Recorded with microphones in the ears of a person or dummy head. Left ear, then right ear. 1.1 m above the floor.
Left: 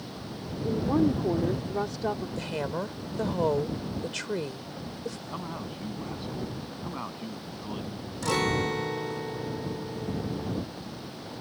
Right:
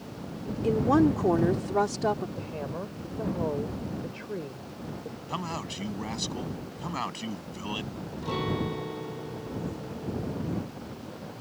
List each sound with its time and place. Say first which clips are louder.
0.6 s a woman speaking: right 3 dB; 65° right (ahead or behind); by 2.3 s 10° right (ahead or behind)
2.4 s a woman speaking: left 4 dB; 75° left (ahead or behind)
5.3 s a man speaking: right 3 dB; 75° right (ahead or behind)
8.2 s a guitar: left 5 dB; 60° left (ahead or behind)